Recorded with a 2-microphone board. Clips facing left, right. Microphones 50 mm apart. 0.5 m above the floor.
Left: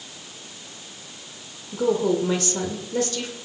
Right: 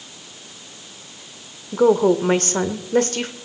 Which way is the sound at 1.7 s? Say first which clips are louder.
Right 6 dB; 50° right (ahead or behind).